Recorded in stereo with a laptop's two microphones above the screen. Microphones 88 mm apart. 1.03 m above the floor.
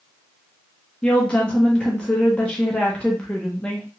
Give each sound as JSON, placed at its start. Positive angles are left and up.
{"t": 1.0, "sound": "a woman speaking", "side_deg": 15, "distance_m": 0.6}